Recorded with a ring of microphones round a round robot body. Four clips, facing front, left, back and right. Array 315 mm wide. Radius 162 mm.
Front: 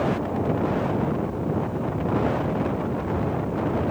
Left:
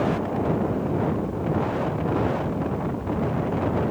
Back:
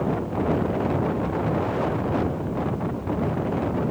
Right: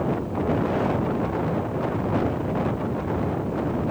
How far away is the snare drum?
I don't hear a snare drum.